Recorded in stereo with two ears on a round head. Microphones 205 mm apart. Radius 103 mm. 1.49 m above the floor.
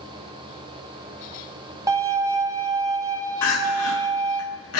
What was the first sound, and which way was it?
A violin, 15° right (ahead or behind).